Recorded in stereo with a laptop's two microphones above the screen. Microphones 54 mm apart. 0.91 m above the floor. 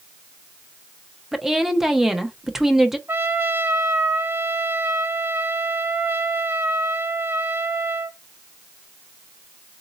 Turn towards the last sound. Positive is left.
turn(degrees=-50)  # may be behind; listen again after turning